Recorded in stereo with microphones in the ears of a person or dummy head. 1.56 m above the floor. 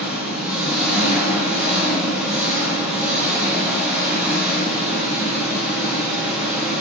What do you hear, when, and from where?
0.0 s an engine running: centre (ahead or behind), 0.7 m